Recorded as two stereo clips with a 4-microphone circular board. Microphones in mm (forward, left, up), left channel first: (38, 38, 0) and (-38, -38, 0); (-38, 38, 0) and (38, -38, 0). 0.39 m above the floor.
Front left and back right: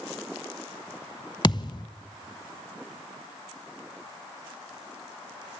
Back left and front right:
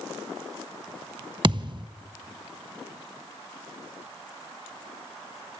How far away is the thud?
About 0.6 m.